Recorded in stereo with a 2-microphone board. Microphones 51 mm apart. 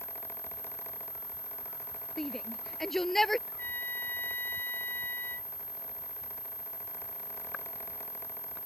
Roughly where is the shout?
Centre.